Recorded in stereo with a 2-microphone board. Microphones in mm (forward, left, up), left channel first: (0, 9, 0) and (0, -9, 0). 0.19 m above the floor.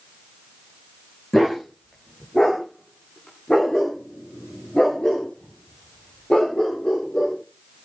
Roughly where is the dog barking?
Left.